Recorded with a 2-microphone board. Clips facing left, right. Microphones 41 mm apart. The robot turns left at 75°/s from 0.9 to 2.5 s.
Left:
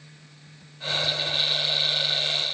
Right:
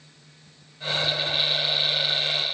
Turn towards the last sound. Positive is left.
No sound to turn to.